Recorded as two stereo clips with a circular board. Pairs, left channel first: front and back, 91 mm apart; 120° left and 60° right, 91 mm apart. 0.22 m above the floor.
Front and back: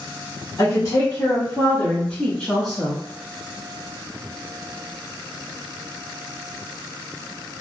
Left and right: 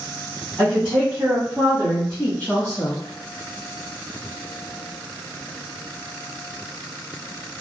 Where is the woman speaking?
15° left, 1.6 m; by 3.0 s 100° left, 1.3 m.